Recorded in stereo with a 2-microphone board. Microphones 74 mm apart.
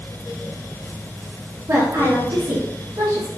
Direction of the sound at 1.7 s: 45° right (ahead or behind).